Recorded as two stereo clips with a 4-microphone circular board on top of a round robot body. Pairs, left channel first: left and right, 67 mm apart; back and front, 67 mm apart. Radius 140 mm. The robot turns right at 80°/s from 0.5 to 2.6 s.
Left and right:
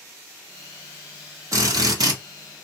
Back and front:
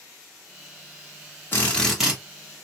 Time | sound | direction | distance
1.5 | a drill | 125° right | 1.5 m